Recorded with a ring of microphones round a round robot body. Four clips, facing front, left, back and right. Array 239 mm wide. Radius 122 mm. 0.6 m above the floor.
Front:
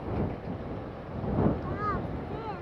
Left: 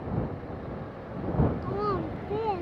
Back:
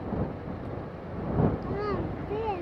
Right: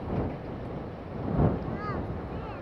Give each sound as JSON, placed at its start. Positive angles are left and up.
{"t": 1.6, "sound": "a child speaking", "azimuth_deg": 120}